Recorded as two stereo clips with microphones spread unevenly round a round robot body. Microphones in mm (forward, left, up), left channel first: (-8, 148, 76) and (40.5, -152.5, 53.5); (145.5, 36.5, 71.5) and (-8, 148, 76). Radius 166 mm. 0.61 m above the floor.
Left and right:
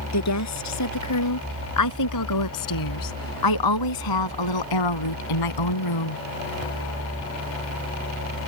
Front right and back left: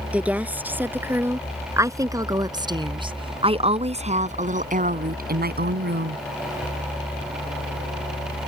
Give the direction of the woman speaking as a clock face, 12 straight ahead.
10 o'clock.